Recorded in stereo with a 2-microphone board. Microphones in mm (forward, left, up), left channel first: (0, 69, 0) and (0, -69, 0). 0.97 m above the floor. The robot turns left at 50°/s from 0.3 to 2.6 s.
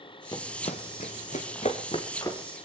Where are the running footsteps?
35° left (ahead or behind), 1.8 m; by 2.4 s 20° left (ahead or behind), 3.5 m.